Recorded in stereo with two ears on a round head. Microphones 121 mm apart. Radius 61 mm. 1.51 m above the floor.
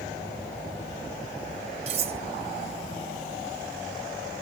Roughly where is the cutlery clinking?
Right.